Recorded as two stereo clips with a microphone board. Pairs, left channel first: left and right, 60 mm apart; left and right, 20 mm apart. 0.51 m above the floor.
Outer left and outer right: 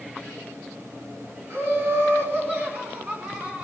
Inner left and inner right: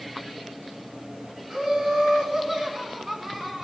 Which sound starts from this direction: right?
Laughter, at 1.5 s.